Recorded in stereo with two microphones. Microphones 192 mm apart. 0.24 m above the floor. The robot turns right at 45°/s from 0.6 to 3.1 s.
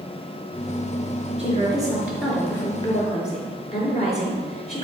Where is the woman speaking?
40° right, 4 m; by 4.8 s 40° left, 4 m.